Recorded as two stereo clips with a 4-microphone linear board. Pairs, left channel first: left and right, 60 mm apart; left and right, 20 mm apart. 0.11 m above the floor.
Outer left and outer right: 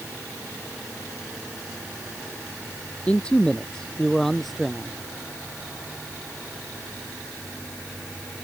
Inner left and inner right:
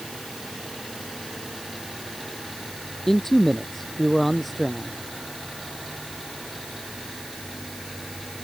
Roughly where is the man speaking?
Centre.